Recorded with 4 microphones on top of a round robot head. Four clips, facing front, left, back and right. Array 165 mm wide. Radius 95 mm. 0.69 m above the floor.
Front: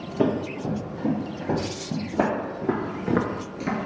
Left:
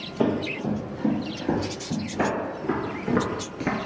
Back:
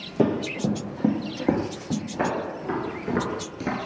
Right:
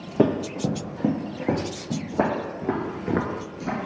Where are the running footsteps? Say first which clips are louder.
Right 3 dB, back 1 dB; 110° right, 1.6 m; by 2.0 s 170° right, 2 m.